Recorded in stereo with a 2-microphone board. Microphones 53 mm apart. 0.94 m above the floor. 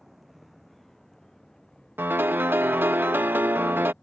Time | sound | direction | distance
0.0 | a vehicle | 5° right (ahead or behind) | ?
2.0 | a piano | 45° right (ahead or behind) | ?